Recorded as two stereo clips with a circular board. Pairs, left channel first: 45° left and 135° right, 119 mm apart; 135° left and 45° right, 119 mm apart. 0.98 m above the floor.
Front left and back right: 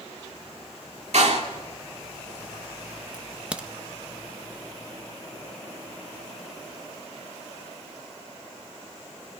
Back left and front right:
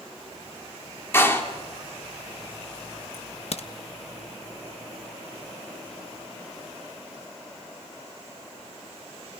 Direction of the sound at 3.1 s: 145° left.